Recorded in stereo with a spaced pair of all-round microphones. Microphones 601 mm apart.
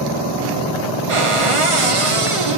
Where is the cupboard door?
60° right (ahead or behind), 1.0 m.